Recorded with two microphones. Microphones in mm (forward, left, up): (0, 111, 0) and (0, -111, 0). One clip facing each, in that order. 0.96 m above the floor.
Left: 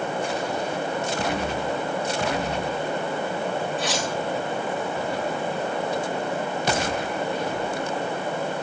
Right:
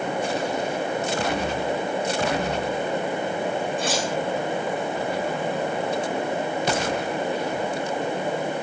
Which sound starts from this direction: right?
Cutlery clinking, at 3.8 s.